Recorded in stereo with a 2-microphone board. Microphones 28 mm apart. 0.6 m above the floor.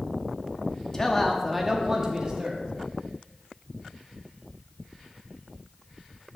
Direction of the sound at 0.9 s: 25° left (ahead or behind).